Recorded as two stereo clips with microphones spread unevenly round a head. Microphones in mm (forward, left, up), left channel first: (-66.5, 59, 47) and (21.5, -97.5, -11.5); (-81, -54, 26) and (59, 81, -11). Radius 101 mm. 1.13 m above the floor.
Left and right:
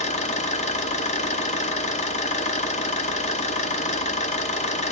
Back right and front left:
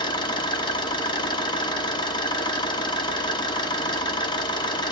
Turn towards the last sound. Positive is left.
turn(degrees=160)